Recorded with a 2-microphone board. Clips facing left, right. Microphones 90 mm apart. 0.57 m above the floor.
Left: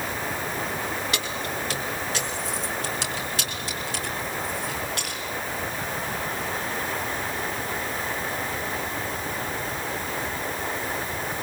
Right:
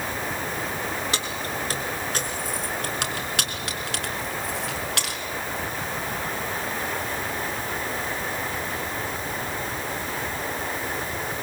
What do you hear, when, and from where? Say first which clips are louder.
1.1 s keys jangling: even; 30° right (ahead or behind), 5 m; by 5.2 s 80° right, 5 m